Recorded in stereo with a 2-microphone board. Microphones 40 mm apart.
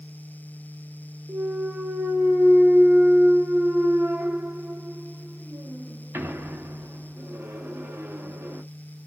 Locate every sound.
1.3 s a clunk: 85° right, 0.6 m